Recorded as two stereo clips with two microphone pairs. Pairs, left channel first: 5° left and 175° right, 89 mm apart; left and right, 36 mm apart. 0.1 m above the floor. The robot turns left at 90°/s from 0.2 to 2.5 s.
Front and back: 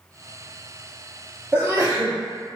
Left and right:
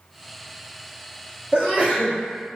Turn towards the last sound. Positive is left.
turn(degrees=160)